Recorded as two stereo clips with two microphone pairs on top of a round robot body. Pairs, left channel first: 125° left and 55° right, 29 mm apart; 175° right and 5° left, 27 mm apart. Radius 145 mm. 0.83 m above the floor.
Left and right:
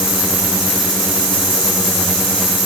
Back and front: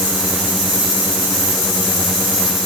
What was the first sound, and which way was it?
Only background noise.